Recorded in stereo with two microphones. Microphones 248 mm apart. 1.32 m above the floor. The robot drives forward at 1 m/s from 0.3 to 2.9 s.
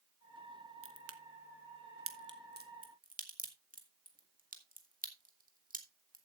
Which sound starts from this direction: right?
A crack, at 0.8 s.